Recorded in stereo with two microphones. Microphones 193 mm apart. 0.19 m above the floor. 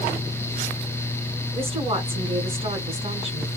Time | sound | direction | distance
1.5 | a woman speaking | 30° right (ahead or behind) | 1.8 m